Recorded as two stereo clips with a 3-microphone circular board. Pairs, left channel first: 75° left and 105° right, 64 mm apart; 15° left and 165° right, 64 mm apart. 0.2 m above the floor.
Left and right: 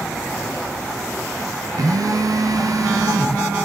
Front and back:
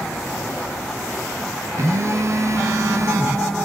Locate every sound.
1.8 s a phone buzzing: 125° right, 0.6 m